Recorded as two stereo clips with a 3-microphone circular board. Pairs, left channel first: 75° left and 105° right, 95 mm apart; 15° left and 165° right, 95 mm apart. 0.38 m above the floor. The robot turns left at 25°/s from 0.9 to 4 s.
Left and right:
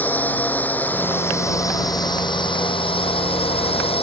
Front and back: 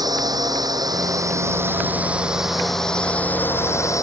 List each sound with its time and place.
0.0 s a drone: 150° left; by 4.0 s 70° left